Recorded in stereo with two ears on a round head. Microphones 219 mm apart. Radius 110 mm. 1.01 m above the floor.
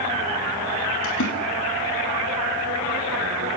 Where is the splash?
55° left (ahead or behind), 5.5 m.